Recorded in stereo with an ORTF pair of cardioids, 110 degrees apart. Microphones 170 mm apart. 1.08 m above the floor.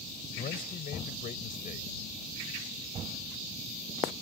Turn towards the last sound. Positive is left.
turn(degrees=55)